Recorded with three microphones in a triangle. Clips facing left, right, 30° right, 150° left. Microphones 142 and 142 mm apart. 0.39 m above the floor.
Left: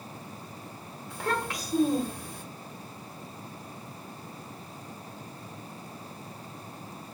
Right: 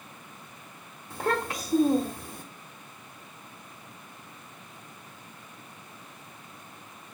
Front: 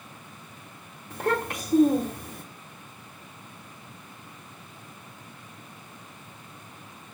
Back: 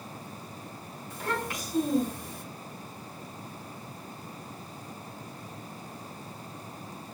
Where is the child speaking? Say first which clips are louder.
Right 3 dB, front 6 dB; 30° right, 1.1 m.